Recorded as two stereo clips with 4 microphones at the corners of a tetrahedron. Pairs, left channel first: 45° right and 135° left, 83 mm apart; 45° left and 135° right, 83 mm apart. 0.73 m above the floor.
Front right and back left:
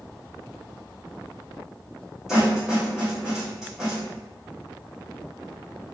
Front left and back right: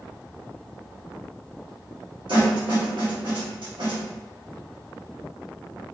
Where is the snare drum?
140° right, 1.7 m.